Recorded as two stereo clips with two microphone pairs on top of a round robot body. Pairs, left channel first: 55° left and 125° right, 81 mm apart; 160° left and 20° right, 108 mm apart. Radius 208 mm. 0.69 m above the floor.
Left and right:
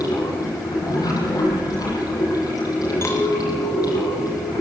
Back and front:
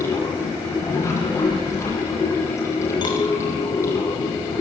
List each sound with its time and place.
0.0 s running water: 95° left, 9 m
3.0 s a clink: 115° left, 4 m